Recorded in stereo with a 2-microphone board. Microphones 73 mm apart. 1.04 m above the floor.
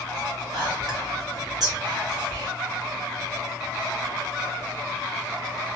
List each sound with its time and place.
0.5 s whispering: 55° right (ahead or behind), 1.4 m